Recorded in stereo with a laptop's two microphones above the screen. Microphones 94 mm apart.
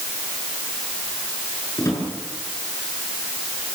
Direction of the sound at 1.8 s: 35° left (ahead or behind).